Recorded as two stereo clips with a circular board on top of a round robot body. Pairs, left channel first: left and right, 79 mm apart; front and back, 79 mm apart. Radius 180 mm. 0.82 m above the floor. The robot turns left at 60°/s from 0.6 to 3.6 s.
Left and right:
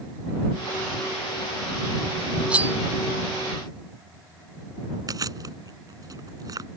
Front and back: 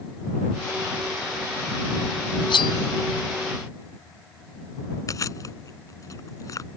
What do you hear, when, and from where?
2.5 s cutlery clinking: 10° right; by 2.8 s 30° right
5.1 s chewing: 45° right